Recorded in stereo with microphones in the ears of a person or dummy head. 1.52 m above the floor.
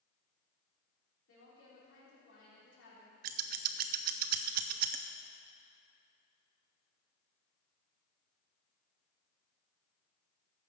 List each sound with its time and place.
1.3 s a woman speaking: 85° left, 3.5 m
3.2 s scissors: 55° right (ahead or behind), 0.5 m